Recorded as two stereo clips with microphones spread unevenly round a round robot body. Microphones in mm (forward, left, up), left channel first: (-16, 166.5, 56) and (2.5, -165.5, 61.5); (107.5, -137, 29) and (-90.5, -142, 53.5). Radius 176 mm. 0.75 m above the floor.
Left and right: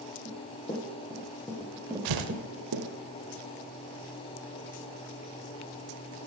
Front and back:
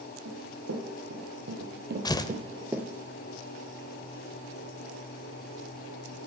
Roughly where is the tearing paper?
Right.